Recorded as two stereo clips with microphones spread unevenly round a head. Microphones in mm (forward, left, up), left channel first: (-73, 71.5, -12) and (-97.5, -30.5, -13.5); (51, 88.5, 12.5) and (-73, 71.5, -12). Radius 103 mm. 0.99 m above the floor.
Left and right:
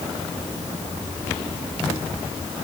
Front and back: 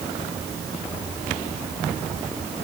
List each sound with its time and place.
Only background noise.